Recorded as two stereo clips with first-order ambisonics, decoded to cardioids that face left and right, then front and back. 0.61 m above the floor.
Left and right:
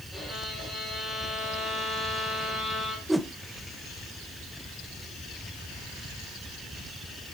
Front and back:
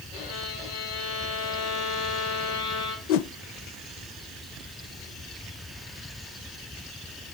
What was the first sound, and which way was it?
A violin, 10° right.